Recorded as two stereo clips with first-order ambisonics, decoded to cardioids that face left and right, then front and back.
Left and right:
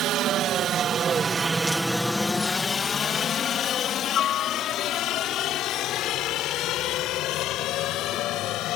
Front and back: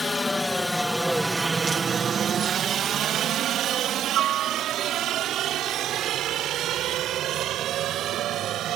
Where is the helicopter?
70° right; by 8.8 s 130° left.